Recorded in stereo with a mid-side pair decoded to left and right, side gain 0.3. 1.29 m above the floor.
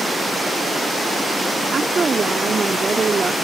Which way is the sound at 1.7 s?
50° right.